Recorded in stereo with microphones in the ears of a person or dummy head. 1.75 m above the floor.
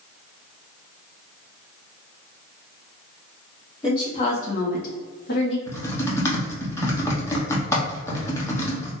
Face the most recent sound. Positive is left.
turn(degrees=20)  # may be behind; listen again after turning